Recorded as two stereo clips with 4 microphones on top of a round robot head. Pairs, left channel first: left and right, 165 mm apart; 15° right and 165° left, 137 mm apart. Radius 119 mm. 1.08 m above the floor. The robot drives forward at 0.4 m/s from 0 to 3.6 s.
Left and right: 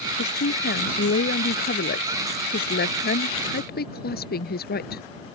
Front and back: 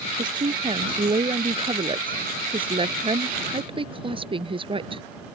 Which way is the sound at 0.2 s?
110° left.